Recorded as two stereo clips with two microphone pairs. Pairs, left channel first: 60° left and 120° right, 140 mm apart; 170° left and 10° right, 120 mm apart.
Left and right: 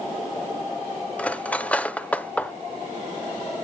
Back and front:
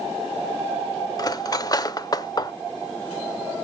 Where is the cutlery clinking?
140° left, 0.5 m.